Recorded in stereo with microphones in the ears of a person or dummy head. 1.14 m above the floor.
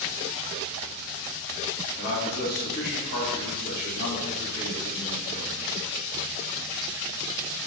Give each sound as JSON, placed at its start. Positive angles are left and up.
{"t": 2.0, "sound": "a man speaking", "side_deg": 45, "distance_m": 1.6}